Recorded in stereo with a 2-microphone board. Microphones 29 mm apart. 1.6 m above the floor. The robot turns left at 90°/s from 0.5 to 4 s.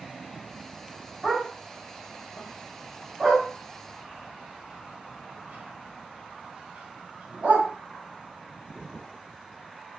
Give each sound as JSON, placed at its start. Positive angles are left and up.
{"t": 1.2, "sound": "a dog barking", "side_deg": -15, "distance_m": 5.0}